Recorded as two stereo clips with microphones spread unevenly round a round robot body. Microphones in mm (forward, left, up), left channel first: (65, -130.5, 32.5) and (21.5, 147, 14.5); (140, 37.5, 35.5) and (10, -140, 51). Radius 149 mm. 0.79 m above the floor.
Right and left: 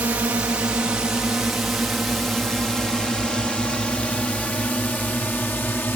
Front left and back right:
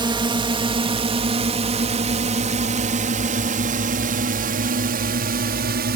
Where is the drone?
175° left; by 6.0 s 165° right.